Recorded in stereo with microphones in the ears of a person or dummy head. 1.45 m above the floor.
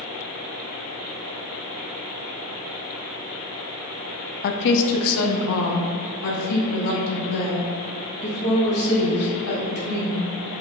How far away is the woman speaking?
About 0.6 m.